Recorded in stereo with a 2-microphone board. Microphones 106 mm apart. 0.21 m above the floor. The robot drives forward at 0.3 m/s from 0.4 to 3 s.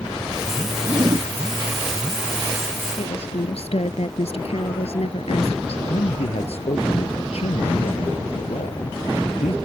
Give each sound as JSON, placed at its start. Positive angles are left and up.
{"t": 0.8, "sound": "a zipper", "side_deg": -45}
{"t": 3.0, "sound": "a woman speaking", "side_deg": 70}
{"t": 5.9, "sound": "a man speaking", "side_deg": 75}